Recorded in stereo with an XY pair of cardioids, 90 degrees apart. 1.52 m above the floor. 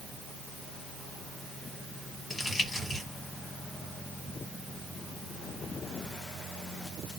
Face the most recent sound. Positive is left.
turn(degrees=35)